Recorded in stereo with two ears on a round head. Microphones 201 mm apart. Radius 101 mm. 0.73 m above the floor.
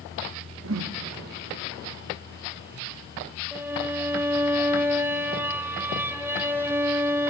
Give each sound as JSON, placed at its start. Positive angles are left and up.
{"t": 0.6, "sound": "a whoosh", "side_deg": -60, "distance_m": 0.8}
{"t": 3.5, "sound": "a violin", "side_deg": -10, "distance_m": 1.0}